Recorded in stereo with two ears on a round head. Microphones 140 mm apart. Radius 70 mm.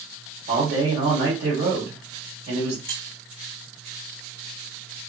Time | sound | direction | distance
0.5 | a man speaking | 80° right | 2 m
2.9 | keys jangling | 60° right (ahead or behind) | 1.0 m